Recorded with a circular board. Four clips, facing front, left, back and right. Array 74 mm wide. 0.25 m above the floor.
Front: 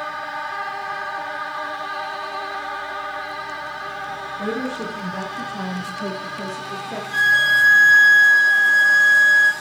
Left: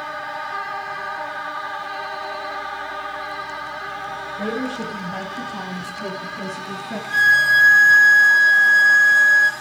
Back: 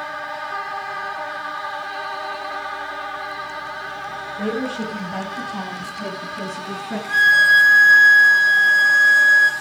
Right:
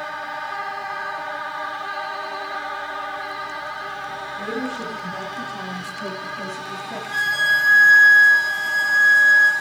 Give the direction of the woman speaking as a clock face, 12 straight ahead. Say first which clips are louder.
Left 2 dB, back 2 dB; 7 o'clock.